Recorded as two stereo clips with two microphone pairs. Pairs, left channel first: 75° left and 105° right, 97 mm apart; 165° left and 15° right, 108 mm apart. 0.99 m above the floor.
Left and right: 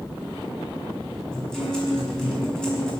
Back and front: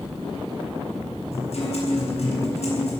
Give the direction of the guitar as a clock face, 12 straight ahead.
7 o'clock.